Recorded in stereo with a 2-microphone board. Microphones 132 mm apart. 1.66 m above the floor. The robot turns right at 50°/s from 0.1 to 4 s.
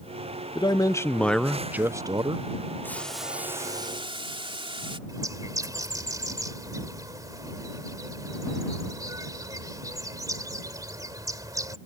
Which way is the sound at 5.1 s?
25° right (ahead or behind).